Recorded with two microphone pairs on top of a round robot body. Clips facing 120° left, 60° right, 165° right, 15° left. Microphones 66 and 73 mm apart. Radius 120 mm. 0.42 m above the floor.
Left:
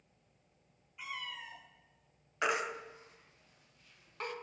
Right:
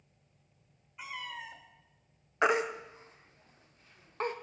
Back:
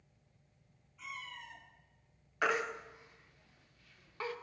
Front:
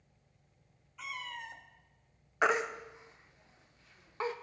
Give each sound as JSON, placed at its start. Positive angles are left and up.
{"t": 1.0, "sound": "a cat meowing", "azimuth_deg": 10, "distance_m": 0.7}
{"t": 2.4, "sound": "a baby crying", "azimuth_deg": -30, "distance_m": 0.5}